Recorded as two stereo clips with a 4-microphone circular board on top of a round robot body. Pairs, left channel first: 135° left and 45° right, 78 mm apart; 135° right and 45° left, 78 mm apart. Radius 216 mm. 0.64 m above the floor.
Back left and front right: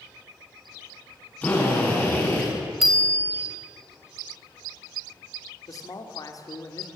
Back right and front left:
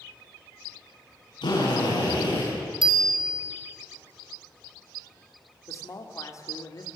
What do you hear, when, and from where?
1.4 s a drill: 155° right, 9.5 m
2.8 s a bicycle bell: 40° left, 3.5 m
5.7 s a man speaking: 175° left, 3 m